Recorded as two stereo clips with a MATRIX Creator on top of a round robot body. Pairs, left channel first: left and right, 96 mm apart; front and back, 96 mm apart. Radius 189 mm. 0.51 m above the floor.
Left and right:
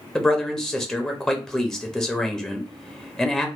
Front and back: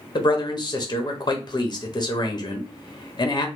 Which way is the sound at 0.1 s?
10° left.